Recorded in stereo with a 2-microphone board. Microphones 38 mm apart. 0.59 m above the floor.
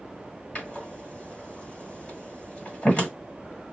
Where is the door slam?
30° left (ahead or behind), 1.9 m.